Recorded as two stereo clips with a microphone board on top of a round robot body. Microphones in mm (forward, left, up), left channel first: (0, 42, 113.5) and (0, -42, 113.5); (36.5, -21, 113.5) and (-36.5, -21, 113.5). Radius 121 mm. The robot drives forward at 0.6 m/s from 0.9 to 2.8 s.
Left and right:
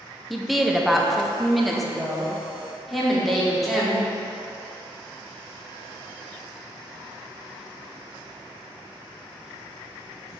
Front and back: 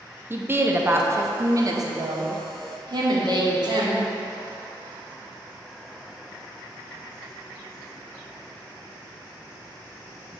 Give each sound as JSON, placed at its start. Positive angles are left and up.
{"t": 0.3, "sound": "a woman speaking", "azimuth_deg": 180, "distance_m": 0.9}